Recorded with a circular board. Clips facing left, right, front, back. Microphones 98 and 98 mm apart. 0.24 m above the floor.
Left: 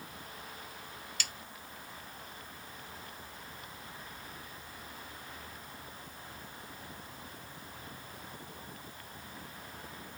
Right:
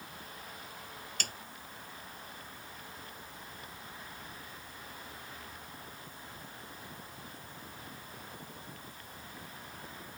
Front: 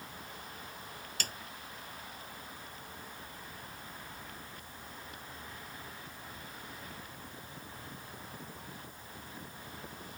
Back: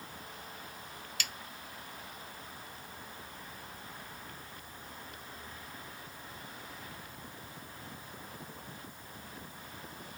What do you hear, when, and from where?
1.2 s a snare drum: 50° right